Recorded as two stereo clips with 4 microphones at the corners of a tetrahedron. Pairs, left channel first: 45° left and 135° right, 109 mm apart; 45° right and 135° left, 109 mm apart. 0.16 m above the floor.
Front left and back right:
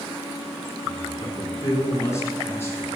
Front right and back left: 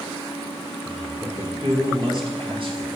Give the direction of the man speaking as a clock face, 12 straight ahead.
9 o'clock.